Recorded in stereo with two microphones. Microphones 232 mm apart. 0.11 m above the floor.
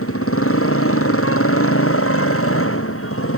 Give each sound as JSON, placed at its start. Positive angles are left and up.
{"t": 0.0, "sound": "a motorcycle", "side_deg": 70}